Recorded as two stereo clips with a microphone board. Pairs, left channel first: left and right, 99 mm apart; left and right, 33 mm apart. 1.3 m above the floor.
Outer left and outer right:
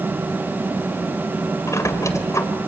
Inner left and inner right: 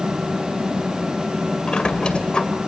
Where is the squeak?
30° left (ahead or behind), 2 m.